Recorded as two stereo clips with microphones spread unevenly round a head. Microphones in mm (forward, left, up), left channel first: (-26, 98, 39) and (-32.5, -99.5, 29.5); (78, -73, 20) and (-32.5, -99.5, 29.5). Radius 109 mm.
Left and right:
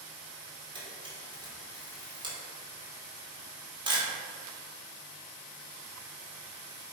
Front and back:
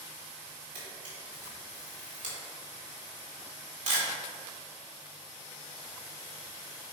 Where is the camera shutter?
160° right, 2 m.